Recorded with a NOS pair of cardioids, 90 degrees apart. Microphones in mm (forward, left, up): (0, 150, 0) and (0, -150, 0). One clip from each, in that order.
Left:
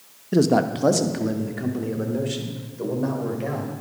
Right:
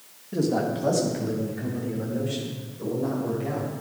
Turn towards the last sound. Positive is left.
turn(degrees=60)